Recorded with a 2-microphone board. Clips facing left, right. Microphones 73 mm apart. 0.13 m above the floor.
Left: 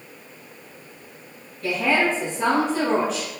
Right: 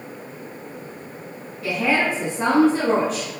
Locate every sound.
1.6 s a woman speaking: centre (ahead or behind), 1.6 m; by 3.3 s 50° right (ahead or behind), 1.8 m